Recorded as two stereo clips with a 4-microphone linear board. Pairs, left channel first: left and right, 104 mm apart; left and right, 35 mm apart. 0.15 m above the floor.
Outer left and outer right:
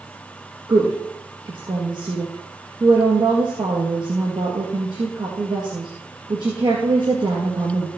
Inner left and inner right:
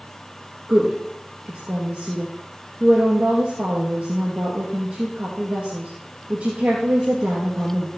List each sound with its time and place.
0.7 s a woman speaking: 45° right (ahead or behind), 2.5 m